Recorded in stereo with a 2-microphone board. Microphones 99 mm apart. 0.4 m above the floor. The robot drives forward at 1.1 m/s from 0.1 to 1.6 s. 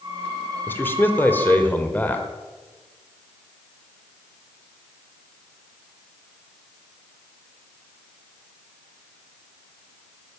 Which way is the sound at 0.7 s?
20° left (ahead or behind).